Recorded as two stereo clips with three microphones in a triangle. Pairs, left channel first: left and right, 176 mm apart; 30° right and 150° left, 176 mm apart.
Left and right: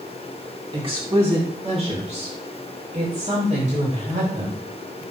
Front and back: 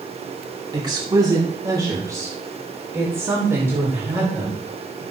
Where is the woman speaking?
145° right, 2.5 m; by 5.0 s 135° right, 5 m.